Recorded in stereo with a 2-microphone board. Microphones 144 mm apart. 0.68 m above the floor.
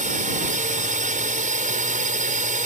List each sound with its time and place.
0.0 s a drone: 65° right (ahead or behind)